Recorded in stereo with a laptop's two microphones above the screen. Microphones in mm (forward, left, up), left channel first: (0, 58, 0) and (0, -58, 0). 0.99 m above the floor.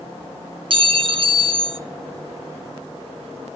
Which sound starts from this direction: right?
A clink, at 0.7 s.